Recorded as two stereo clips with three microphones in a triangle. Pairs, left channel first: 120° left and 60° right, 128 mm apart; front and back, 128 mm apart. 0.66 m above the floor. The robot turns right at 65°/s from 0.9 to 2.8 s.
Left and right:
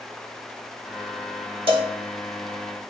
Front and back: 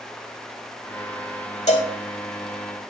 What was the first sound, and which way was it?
A cowbell, 20° right.